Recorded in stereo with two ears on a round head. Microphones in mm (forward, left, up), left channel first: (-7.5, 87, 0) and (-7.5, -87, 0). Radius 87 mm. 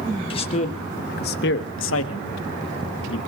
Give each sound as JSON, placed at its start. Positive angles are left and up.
{"t": 0.3, "sound": "a man speaking", "side_deg": 30, "distance_m": 1.7}